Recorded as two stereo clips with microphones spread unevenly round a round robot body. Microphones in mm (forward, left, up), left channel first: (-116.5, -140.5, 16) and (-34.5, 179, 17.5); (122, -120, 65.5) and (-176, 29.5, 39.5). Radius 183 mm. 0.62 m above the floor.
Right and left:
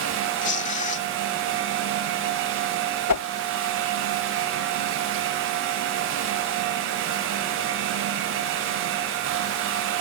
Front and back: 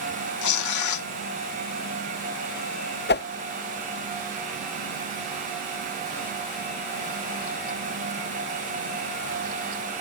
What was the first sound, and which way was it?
Tearing paper, 40° right.